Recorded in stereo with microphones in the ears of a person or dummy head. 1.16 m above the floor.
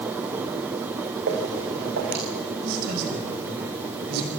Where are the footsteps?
60° right (ahead or behind), 5 m.